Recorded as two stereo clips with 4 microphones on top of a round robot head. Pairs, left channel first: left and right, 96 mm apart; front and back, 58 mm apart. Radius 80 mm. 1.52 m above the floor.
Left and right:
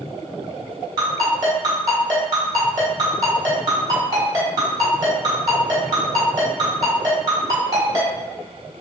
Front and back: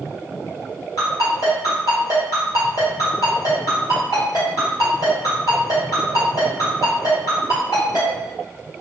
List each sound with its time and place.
1.0 s a ringtone: 45° right, 1.6 m